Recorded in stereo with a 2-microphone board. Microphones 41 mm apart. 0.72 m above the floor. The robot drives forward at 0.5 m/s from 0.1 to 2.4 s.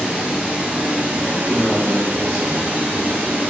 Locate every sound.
0.0 s running water: 25° right (ahead or behind), 1.1 m; by 3.5 s 55° right (ahead or behind), 0.6 m
1.3 s a man speaking: centre (ahead or behind), 0.8 m